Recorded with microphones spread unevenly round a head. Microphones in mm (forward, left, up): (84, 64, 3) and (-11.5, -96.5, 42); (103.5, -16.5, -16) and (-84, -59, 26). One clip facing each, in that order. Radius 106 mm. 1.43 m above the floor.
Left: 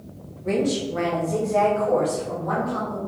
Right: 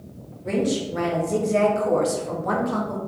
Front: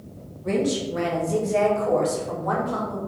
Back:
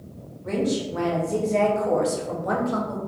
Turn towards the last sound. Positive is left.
turn(degrees=-115)